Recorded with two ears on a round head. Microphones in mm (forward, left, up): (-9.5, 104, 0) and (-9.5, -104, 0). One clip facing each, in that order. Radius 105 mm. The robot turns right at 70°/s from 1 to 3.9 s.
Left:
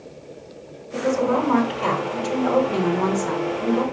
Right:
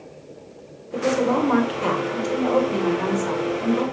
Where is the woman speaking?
85° right, 1.8 m; by 3.8 s 115° left, 1.8 m.